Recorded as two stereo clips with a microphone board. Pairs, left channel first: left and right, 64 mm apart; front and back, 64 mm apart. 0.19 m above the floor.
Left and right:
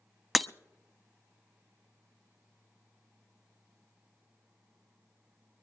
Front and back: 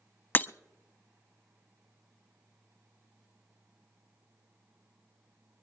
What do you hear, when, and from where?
0.3 s breaking glass: straight ahead, 0.5 m